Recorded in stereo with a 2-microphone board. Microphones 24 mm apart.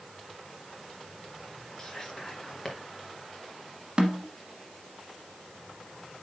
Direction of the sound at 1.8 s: 20° left (ahead or behind).